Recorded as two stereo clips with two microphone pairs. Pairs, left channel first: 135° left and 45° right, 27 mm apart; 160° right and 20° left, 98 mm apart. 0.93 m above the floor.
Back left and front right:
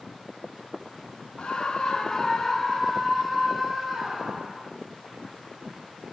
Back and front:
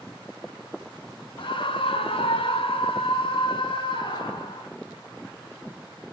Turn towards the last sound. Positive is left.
turn(degrees=-130)